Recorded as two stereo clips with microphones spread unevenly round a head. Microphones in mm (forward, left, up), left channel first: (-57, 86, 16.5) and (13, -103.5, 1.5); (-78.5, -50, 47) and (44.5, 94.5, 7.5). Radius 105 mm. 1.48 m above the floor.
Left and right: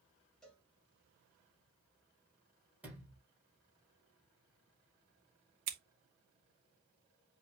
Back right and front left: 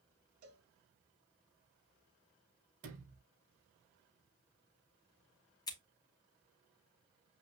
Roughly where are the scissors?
Ahead right.